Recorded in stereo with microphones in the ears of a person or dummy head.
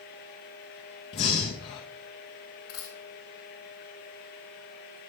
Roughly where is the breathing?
Left.